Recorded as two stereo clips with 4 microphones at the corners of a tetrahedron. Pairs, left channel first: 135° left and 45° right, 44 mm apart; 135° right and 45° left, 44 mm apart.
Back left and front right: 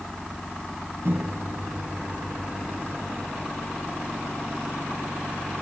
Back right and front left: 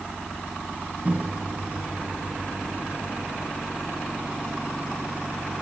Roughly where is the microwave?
Ahead.